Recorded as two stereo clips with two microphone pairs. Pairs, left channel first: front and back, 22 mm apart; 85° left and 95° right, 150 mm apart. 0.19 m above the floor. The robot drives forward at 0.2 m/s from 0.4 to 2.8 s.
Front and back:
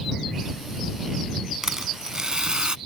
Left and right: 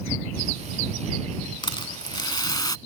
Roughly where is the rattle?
Behind left.